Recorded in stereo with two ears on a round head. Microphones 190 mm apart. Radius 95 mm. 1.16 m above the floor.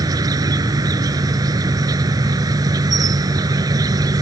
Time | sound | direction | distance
0.0 | an insect | 20° right (ahead or behind) | ?